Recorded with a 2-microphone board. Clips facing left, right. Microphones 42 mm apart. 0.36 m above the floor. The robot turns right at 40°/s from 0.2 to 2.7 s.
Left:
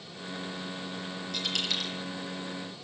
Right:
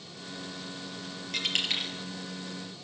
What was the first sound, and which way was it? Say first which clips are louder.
A dropped coin: right 2 dB; 50° right (ahead or behind).